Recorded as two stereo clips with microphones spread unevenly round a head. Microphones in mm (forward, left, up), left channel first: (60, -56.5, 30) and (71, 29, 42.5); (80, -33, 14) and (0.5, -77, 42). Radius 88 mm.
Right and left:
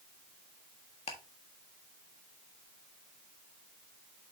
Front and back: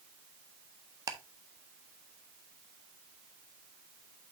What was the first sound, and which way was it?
Ticking, 115° right.